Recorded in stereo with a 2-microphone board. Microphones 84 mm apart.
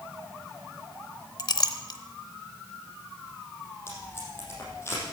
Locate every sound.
1.4 s a clink: 50° left (ahead or behind), 0.7 m
3.9 s tape being pulled: 30° left (ahead or behind), 5 m